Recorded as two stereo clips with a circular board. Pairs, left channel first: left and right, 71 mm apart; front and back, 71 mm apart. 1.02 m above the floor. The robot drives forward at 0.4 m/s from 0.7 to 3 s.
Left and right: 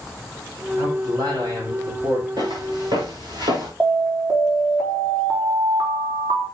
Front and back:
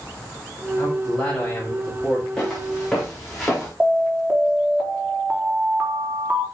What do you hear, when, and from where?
0.8 s a man speaking: 65° right, 7 m; by 2.3 s 70° right, 6.5 m
2.4 s footsteps: 80° right, 5.5 m; by 3.7 s 85° right, 4.5 m
3.8 s an alarm: 120° right, 4 m